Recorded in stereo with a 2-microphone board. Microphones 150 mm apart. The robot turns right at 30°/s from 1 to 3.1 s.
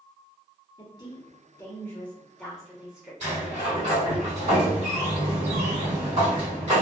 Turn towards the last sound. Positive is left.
turn(degrees=-50)  # may be behind; listen again after turning